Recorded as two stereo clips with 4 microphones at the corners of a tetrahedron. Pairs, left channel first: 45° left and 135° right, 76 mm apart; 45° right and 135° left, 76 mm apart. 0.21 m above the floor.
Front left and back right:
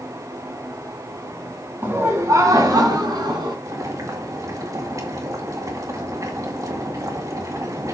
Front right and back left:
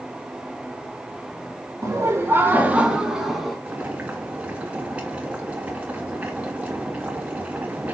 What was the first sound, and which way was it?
Laughter, 170° left.